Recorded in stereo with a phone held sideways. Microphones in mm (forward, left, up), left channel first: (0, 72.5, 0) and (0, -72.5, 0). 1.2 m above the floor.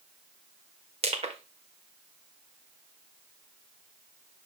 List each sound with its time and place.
1.0 s crushing: 45° right (ahead or behind), 1.3 m